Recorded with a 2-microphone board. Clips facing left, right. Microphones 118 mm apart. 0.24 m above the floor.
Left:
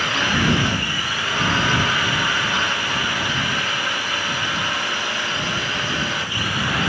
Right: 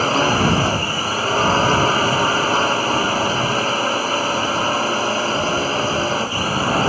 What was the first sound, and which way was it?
A drone, 35° right (ahead or behind).